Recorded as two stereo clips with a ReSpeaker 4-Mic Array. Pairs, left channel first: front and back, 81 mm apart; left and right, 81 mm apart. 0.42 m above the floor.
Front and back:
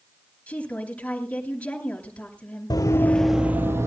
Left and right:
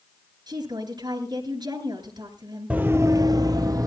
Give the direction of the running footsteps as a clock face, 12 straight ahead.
1 o'clock.